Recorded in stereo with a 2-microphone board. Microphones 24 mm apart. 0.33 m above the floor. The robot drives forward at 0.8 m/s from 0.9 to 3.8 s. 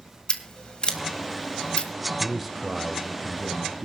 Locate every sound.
0.3 s scissors: 40° left (ahead or behind), 2.5 m; by 1.9 s 45° left (ahead or behind), 2 m
2.2 s a man speaking: 5° right (ahead or behind), 1.0 m